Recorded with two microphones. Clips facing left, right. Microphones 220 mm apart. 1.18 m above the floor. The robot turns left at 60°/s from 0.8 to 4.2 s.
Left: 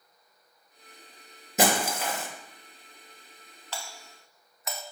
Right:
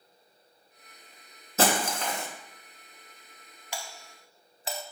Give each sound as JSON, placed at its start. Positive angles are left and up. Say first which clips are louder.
{"t": 1.6, "sound": "breaking glass", "louder": "left 1 dB", "side_deg": 15, "distance_m": 1.0}
{"t": 3.7, "sound": "a doorbell", "louder": "right 1 dB", "side_deg": -15, "distance_m": 0.6}